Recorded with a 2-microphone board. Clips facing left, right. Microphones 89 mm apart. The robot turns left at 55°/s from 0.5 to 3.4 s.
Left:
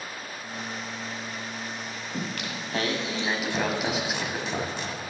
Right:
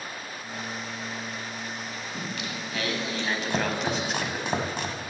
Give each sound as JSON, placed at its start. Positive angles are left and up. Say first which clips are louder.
{"t": 2.1, "sound": "singing", "louder": "left 3 dB", "azimuth_deg": 75, "distance_m": 1.1}
{"t": 3.5, "sound": "chopping", "louder": "right 2 dB", "side_deg": -60, "distance_m": 0.9}